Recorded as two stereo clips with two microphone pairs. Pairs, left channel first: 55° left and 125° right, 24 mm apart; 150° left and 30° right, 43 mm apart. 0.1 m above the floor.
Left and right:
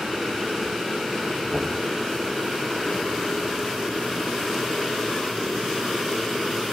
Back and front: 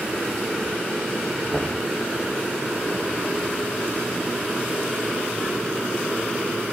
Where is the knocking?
125° right, 1.7 m.